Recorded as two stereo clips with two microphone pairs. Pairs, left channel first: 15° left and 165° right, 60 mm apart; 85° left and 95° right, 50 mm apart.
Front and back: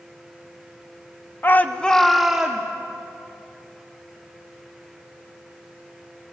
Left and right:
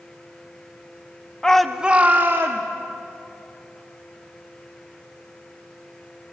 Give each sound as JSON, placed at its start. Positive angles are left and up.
{"t": 1.4, "sound": "a shout", "azimuth_deg": 15, "distance_m": 0.9}